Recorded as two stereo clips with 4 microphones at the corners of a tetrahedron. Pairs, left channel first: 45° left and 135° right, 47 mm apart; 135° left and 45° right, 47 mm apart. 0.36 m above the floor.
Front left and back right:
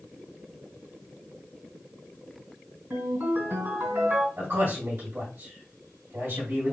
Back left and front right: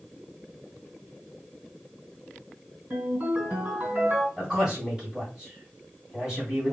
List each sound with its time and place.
2.9 s a ringtone: 95° right, 3 m
4.4 s a man speaking: 120° right, 2 m